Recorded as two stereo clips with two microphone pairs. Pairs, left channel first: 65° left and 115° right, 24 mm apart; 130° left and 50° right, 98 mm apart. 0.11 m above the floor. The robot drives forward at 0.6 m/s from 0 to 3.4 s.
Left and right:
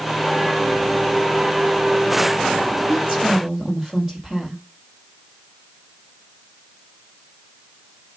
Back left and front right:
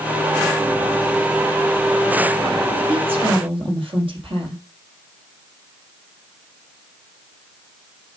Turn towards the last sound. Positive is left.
turn(degrees=-50)